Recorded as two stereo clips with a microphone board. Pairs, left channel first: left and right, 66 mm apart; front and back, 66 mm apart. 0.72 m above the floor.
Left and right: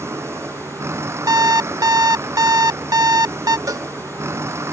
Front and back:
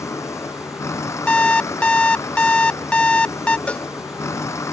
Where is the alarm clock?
75° right.